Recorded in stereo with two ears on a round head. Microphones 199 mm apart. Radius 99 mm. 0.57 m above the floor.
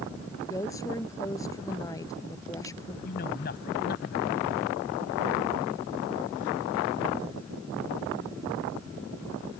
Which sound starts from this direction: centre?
A woman speaking, at 0.4 s.